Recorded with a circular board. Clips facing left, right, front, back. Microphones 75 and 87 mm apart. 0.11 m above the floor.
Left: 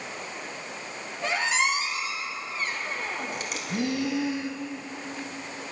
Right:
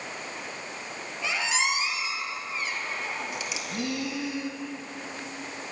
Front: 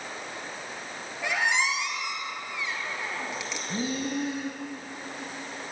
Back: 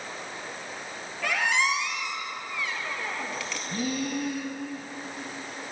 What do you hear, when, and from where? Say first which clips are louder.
1.2 s a squeak: left 3 dB, back 1 dB; 65° left, 1.4 m
3.7 s breathing: left 5 dB, even; 40° left, 1.1 m